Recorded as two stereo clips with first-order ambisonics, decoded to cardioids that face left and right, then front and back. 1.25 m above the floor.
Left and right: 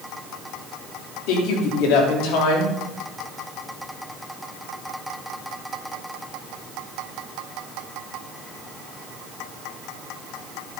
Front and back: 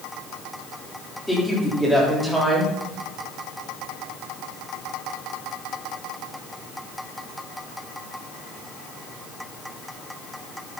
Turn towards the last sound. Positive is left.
turn(degrees=90)